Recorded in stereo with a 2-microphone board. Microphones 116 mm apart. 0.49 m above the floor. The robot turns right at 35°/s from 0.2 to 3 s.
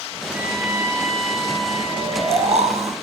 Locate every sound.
0.3 s a trumpet: 165° right, 3.5 m; by 2.9 s 75° right, 3.5 m
1.9 s snoring: 125° right, 1.7 m; by 2.9 s 90° right, 1.7 m